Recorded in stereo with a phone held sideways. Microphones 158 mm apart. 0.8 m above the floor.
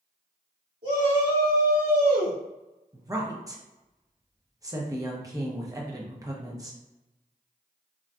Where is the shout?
60° right (ahead or behind), 1.8 m; by 2.4 s 70° right (ahead or behind), 2 m.